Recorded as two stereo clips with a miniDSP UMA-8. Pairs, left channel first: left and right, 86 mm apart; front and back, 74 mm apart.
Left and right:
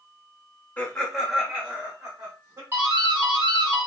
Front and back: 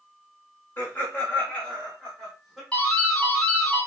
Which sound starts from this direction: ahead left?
Laughter, at 0.8 s.